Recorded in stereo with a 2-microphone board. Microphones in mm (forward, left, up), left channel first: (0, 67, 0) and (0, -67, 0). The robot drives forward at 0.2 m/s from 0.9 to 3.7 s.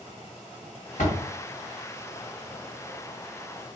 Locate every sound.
1.0 s a door slam: 70° left (ahead or behind), 1.6 m